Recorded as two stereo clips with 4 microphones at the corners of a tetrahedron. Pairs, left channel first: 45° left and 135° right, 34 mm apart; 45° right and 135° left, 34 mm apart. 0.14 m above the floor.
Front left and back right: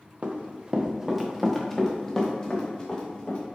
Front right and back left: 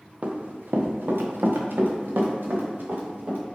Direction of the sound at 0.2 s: 175° right.